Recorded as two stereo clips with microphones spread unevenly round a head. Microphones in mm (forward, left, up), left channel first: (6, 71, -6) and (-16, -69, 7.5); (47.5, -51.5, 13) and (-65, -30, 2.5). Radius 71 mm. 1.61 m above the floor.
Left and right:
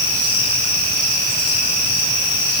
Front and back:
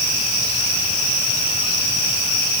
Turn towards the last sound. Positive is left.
No sound to turn to.